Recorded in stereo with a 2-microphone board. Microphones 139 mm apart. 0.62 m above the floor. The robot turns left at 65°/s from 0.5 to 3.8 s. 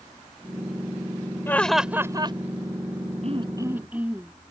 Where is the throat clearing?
130° right; by 4.3 s 170° right.